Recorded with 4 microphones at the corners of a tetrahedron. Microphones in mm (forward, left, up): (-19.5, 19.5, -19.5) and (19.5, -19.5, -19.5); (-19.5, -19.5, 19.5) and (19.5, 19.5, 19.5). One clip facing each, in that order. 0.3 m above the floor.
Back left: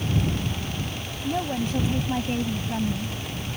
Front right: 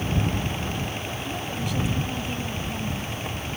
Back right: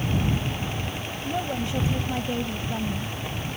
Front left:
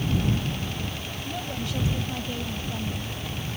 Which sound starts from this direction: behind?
A woman speaking, at 1.2 s.